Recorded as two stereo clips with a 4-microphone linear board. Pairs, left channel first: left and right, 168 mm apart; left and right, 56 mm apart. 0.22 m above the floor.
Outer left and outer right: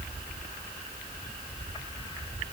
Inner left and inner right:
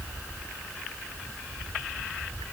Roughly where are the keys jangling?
No keys jangling in this recording.